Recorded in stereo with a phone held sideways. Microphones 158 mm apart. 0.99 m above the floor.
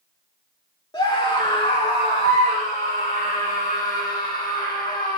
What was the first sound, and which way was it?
A scream, 30° left (ahead or behind).